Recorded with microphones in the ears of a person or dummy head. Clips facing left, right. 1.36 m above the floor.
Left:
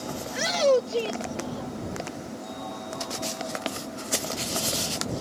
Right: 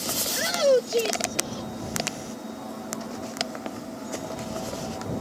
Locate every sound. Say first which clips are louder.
0.3 s a shout: right 1 dB; centre (ahead or behind); by 2.4 s 60° right (ahead or behind)